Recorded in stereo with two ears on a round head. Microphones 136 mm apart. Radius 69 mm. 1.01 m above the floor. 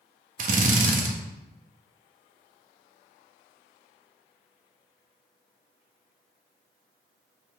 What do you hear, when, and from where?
0.4 s a drill: 50° right (ahead or behind), 1.3 m